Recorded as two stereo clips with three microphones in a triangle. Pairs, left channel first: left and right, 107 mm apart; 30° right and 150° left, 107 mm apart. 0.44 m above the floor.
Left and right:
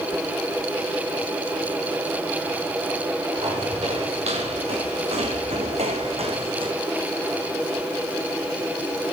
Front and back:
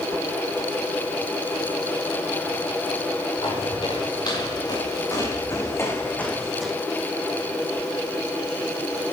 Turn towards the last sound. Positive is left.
turn(degrees=-125)